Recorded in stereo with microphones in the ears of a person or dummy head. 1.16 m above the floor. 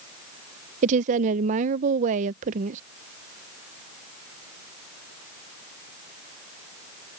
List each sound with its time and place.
0.8 s a woman speaking: 45° right (ahead or behind)